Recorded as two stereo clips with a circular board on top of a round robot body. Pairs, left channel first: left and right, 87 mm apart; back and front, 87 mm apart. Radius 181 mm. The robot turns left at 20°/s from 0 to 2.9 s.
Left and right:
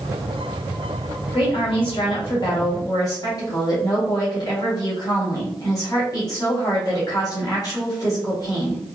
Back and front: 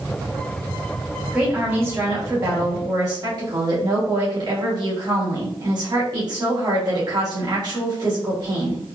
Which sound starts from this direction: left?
A woman speaking, at 1.3 s.